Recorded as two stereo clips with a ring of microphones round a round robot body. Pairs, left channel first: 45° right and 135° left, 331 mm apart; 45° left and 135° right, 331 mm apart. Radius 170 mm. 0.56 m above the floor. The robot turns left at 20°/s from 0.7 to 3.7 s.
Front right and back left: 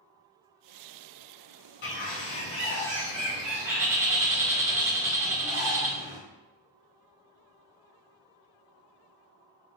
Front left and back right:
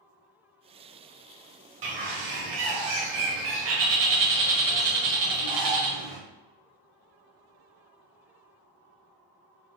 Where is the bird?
105° right, 0.8 m; by 6.2 s 145° right, 0.8 m.